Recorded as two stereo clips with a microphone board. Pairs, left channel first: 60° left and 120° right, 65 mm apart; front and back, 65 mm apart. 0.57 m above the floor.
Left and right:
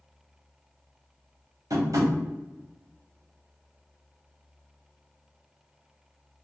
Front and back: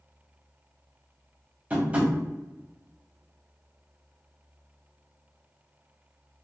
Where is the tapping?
115° right, 1.3 m.